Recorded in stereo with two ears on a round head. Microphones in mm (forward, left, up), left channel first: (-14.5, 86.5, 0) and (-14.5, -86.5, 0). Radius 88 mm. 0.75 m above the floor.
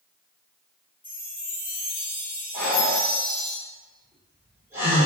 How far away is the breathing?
About 2.0 m.